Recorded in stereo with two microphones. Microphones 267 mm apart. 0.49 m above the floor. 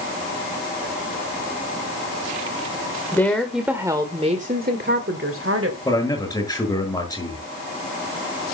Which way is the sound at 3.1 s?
10° left (ahead or behind).